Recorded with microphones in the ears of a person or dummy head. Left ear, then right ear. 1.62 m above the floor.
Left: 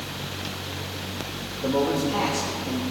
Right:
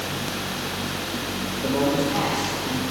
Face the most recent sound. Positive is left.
turn(degrees=70)  # may be behind; listen again after turning